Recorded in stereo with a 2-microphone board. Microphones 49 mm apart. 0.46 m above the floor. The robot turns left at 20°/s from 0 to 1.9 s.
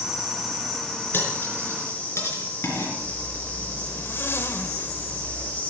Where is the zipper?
50° left (ahead or behind), 0.9 m.